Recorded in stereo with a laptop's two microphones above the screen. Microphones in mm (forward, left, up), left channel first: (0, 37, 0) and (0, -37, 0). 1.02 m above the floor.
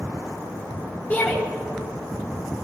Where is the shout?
30° left (ahead or behind), 1.6 m.